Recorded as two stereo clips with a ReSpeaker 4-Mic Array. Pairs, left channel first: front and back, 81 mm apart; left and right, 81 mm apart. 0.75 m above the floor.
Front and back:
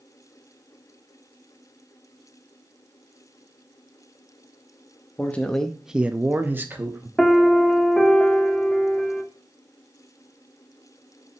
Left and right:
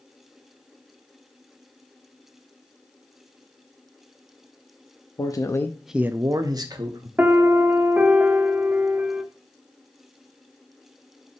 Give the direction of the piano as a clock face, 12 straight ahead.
2 o'clock.